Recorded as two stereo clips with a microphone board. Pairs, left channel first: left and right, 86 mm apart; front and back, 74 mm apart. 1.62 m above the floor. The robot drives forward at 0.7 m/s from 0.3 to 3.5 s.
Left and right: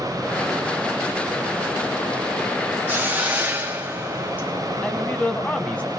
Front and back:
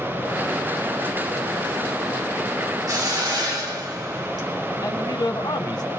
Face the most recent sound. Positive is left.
turn(degrees=15)